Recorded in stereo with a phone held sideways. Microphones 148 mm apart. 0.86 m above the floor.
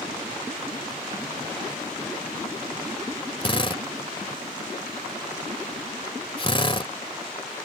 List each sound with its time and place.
3.4 s a drill: 35° left (ahead or behind)